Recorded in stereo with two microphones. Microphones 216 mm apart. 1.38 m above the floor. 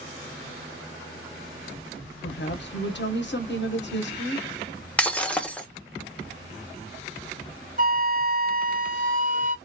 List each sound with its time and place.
2.2 s a woman speaking: 55° left (ahead or behind), 0.8 m
5.0 s breaking glass: 5° left (ahead or behind), 0.5 m
7.8 s a flute: 40° right (ahead or behind), 0.5 m